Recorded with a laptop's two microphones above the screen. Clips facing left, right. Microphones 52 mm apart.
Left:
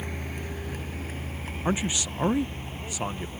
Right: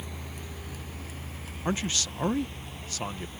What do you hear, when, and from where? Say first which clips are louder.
0.0 s a vehicle: left 6 dB; 50° left (ahead or behind); by 3.4 s 35° left (ahead or behind)
1.6 s a man speaking: left 2 dB; 15° left (ahead or behind)